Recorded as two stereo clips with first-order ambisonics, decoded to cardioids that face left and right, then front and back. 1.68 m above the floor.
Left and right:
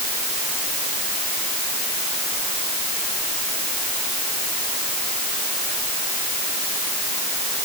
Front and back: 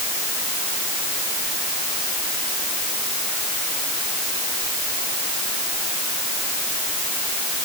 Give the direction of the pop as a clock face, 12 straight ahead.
I don't hear a pop.